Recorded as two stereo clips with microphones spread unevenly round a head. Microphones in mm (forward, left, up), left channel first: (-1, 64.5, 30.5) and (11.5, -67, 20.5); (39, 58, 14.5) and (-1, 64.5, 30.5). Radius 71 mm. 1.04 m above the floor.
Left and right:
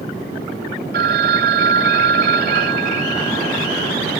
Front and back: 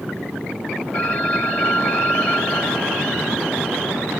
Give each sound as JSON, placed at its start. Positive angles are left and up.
{"t": 0.9, "sound": "a phone ringing", "azimuth_deg": -85, "distance_m": 1.8}